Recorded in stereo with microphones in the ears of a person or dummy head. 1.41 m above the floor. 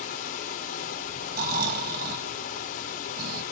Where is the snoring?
55° right (ahead or behind), 1.5 m.